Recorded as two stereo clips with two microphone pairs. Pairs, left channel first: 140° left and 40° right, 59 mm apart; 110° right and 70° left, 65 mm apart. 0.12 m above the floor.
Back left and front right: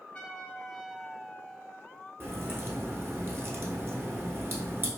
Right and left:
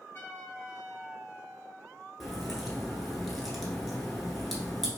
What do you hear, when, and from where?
0.1 s a trumpet: 160° right, 0.9 m
2.2 s a crack: 15° right, 0.9 m